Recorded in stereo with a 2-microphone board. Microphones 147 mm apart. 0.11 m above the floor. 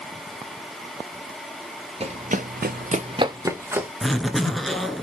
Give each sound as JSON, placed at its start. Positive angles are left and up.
{"t": 2.0, "sound": "running footsteps", "side_deg": -45, "distance_m": 0.9}
{"t": 4.0, "sound": "a zipper", "side_deg": 0, "distance_m": 0.7}